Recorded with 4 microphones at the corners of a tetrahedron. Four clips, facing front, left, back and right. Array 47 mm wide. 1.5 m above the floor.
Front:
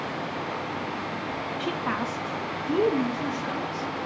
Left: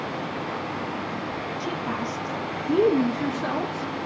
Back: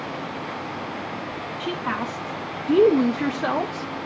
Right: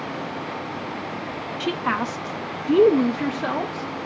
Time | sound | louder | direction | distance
1.6 | a woman speaking | right 8 dB, back 3 dB | 85° right | 0.8 m